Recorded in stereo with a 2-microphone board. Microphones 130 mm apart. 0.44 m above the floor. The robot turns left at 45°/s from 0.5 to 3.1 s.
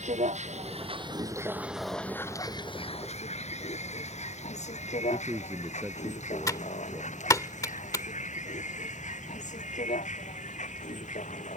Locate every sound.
0.0 s a vehicle: 65° right (ahead or behind); by 11.6 s 80° left
5.1 s a man speaking: 20° right (ahead or behind)
6.5 s typing on a keyboard: 25° left (ahead or behind)